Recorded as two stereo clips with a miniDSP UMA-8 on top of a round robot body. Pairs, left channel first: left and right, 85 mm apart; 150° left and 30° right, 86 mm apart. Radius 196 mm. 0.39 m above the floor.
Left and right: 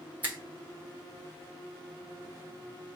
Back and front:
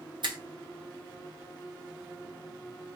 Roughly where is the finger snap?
Ahead.